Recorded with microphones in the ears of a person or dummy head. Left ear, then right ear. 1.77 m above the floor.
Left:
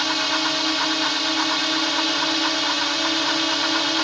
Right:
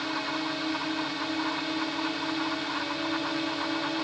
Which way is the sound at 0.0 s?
55° left (ahead or behind).